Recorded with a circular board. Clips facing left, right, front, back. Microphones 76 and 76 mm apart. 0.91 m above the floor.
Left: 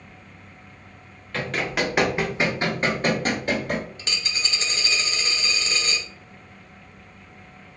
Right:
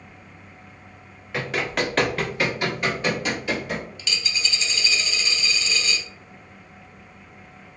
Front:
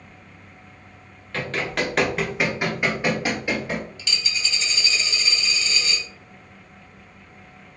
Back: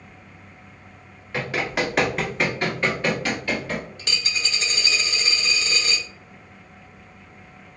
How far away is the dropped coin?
About 0.6 m.